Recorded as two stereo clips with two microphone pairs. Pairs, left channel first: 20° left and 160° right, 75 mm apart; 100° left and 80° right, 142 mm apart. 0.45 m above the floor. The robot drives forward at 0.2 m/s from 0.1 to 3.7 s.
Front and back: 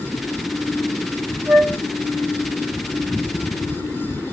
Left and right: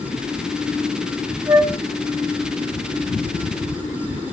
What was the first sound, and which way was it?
A flute, 135° right.